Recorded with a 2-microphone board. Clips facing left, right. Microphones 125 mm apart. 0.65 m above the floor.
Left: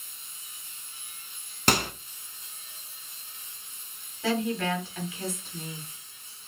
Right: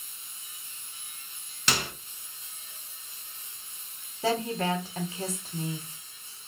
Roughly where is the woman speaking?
Right.